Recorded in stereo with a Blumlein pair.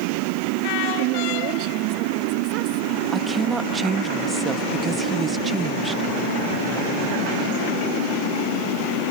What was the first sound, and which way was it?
A woman speaking, 40° right.